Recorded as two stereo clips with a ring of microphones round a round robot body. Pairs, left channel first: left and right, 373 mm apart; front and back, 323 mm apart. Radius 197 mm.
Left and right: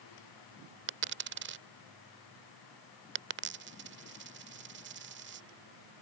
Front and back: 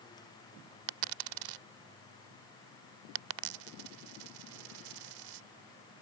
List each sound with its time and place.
0.9 s a dropped coin: 150° right